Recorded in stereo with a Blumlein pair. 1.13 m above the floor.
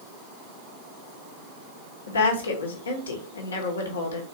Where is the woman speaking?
70° left, 1.2 m.